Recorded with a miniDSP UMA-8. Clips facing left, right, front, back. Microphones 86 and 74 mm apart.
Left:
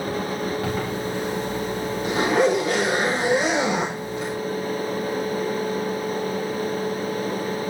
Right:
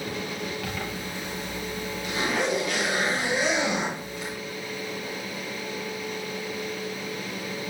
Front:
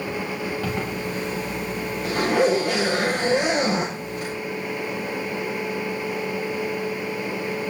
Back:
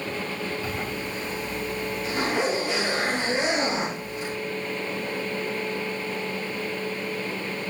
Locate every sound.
0.6 s a zipper: 35° left, 6 m